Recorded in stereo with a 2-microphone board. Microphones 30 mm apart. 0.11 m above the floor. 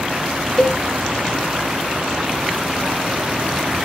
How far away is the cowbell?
About 0.9 m.